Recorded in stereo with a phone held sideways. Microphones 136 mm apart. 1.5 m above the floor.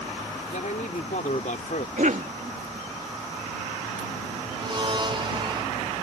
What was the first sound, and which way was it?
A man speaking, 75° left (ahead or behind).